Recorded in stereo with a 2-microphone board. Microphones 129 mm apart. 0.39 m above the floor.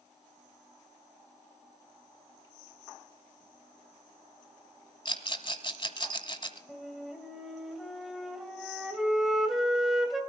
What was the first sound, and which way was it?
A rattle, 40° left (ahead or behind).